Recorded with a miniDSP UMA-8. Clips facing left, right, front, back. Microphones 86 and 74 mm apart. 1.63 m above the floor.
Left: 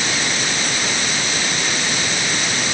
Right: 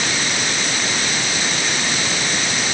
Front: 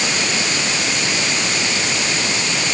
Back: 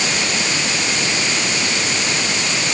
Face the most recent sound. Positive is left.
No sound to turn to.